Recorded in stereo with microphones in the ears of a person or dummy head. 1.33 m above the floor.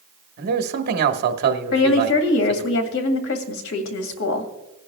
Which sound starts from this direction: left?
A woman speaking, at 1.7 s.